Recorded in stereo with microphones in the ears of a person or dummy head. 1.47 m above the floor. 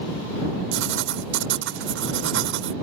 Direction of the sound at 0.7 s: 70° right (ahead or behind).